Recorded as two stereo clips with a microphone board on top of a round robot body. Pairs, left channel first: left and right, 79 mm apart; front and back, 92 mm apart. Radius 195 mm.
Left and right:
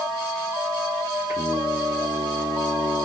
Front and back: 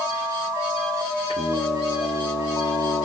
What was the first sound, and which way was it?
Singing, 30° right.